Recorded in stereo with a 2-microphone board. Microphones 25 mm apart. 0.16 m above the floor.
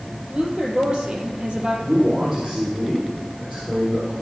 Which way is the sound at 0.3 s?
40° right (ahead or behind).